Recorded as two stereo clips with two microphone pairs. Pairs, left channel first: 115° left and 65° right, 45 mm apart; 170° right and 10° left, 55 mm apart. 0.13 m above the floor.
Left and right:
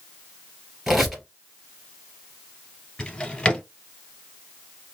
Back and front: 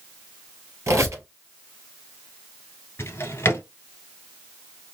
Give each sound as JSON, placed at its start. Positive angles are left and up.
{"t": 0.9, "sound": "a squeak", "azimuth_deg": 15, "distance_m": 1.9}
{"t": 3.0, "sound": "a drawer", "azimuth_deg": 175, "distance_m": 1.1}